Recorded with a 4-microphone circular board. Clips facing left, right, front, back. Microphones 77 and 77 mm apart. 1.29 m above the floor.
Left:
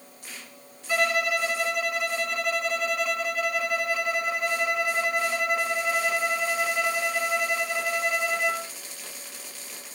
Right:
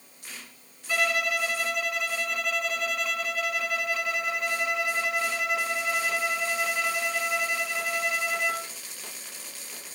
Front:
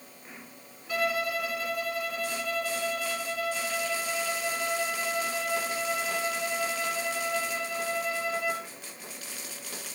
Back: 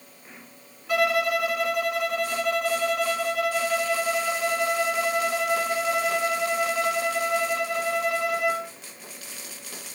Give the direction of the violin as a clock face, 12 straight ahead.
6 o'clock.